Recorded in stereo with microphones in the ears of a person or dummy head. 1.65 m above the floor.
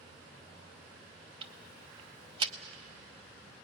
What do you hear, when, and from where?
1.4 s ticking: 25° right (ahead or behind), 0.8 m